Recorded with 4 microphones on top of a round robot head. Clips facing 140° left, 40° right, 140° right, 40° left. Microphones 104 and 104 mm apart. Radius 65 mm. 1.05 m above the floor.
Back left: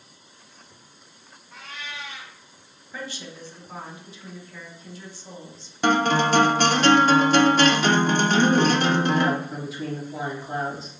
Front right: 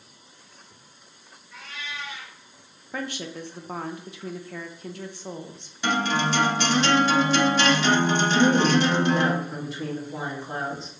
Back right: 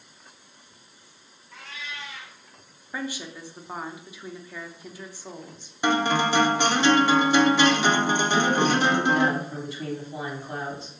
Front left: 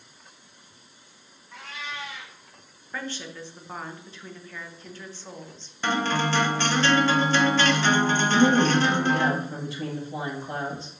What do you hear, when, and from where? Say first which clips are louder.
1.5 s a cat meowing: even, front left 3 dB; 90° left, 1.5 m
2.9 s a woman speaking: front right 4 dB, back right 2 dB; 60° right, 0.5 m
5.8 s a guitar: back left 4 dB, back right 3 dB; 150° left, 0.6 m
8.3 s a woman speaking: front right 1 dB, front left 4 dB; 55° left, 1.6 m